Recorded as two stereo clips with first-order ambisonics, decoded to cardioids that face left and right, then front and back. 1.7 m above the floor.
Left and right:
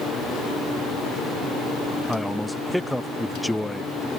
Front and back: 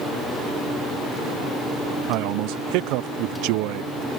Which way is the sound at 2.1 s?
Straight behind.